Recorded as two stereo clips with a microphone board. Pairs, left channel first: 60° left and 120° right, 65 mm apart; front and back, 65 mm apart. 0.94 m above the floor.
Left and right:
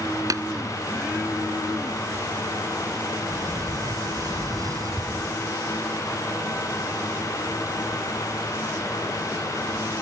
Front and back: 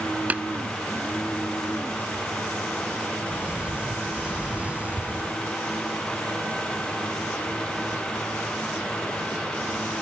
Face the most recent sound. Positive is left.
turn(degrees=-115)